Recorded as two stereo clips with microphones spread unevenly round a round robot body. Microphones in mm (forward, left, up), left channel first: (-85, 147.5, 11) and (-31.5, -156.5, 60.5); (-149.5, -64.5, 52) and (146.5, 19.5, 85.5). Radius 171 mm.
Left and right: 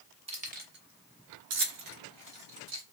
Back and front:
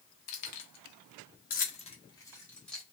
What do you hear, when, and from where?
0.3 s keys jangling: 155° right, 1.0 m; by 2.8 s 75° right, 1.5 m